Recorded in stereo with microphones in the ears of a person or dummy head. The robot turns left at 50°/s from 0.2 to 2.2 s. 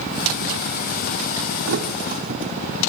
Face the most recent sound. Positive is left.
turn(degrees=-45)  # may be behind; listen again after turning